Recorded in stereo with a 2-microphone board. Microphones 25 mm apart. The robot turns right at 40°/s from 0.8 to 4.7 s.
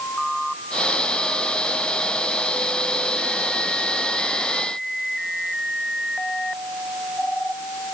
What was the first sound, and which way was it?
Only background noise.